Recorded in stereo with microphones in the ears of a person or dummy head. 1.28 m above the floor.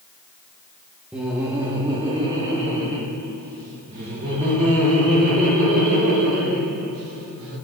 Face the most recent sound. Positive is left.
turn(degrees=-55)  # may be behind; listen again after turning